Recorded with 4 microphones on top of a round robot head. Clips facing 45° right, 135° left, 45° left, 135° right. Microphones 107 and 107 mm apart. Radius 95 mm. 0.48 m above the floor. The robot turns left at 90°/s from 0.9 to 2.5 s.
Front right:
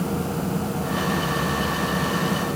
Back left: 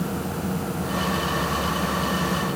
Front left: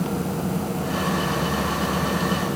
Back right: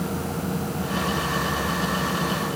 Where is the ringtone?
No ringtone in this recording.